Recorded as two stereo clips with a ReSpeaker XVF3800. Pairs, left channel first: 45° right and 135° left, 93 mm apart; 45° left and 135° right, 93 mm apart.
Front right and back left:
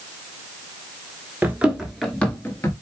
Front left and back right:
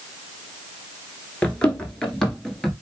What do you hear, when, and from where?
1.4 s running footsteps: 100° left, 1.2 m; by 2.7 s 45° right, 1.2 m